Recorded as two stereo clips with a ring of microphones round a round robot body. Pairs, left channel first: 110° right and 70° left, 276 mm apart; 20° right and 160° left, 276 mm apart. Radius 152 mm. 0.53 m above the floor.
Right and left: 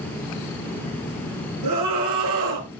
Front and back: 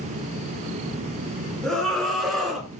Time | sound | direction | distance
1.6 | a scream | 65° left | 6 m